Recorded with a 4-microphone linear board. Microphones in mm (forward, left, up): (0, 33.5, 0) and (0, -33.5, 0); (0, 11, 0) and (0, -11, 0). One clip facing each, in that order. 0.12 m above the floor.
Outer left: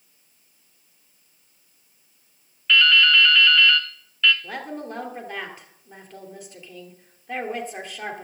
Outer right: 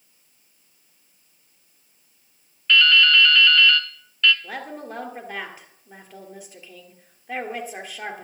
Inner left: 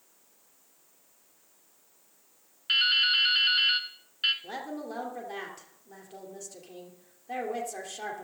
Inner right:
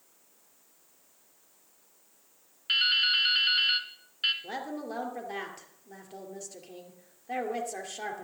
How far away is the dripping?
About 0.8 m.